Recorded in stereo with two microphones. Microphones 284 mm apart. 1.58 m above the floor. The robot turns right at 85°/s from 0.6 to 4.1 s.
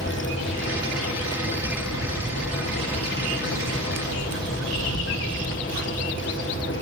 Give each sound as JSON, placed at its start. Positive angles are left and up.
{"t": 1.6, "sound": "a bird", "azimuth_deg": 60, "distance_m": 3.0}